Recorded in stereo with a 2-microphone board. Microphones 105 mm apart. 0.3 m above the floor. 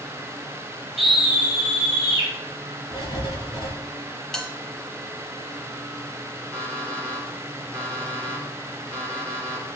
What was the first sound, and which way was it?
A scream, centre (ahead or behind).